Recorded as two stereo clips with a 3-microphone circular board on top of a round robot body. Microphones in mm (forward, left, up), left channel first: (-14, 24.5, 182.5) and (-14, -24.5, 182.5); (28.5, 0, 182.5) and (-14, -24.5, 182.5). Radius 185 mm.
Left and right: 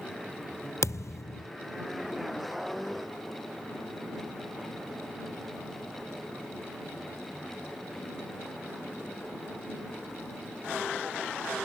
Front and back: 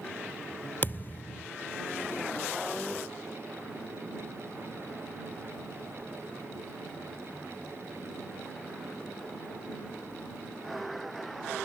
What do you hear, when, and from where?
0.8 s a thud: 80° left